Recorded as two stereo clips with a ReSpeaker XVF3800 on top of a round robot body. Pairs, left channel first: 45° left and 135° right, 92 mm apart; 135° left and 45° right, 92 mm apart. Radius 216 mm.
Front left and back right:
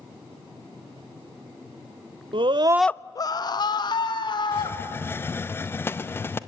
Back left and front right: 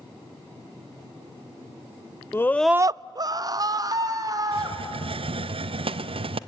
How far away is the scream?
About 0.8 m.